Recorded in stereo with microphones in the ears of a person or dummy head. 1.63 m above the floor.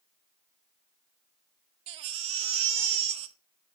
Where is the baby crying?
35° right (ahead or behind), 0.6 m.